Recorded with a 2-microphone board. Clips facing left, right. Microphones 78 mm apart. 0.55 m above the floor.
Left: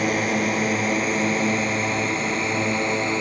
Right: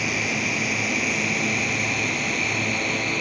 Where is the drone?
40° left (ahead or behind); by 3.2 s 25° left (ahead or behind).